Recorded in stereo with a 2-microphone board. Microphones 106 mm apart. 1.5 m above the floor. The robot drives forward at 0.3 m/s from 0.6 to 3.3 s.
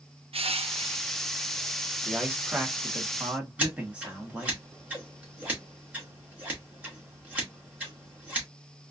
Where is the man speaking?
15° right (ahead or behind), 1.2 m; by 4.6 s 10° right (ahead or behind), 1.6 m.